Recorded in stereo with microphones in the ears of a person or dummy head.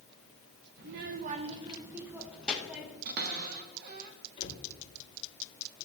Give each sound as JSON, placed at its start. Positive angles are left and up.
{"t": 0.8, "sound": "a child speaking", "side_deg": -45, "distance_m": 0.6}
{"t": 3.0, "sound": "a cupboard door", "side_deg": -50, "distance_m": 0.9}
{"t": 4.4, "sound": "a cupboard door", "side_deg": 35, "distance_m": 2.5}